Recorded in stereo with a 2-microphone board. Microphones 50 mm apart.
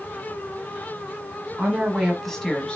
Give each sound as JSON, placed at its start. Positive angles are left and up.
{"t": 1.6, "sound": "a woman speaking", "side_deg": -25, "distance_m": 1.3}